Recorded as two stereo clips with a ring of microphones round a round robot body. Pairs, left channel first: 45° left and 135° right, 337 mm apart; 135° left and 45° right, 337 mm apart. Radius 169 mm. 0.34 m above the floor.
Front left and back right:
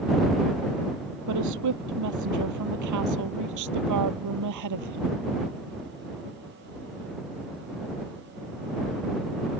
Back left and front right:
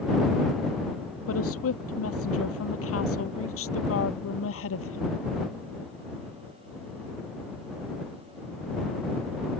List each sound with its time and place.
1.3 s a woman speaking: 175° right; by 5.2 s 170° right